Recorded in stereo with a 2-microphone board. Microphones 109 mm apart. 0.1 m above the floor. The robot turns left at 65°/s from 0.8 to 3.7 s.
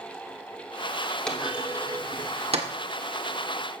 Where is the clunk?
10° left (ahead or behind), 1.5 m; by 2.7 s 75° right (ahead or behind), 1.5 m.